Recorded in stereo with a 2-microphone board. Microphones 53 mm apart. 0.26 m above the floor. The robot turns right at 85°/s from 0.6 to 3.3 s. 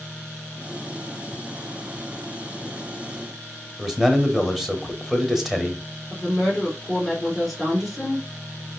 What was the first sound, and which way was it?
A man speaking, 5° right (ahead or behind).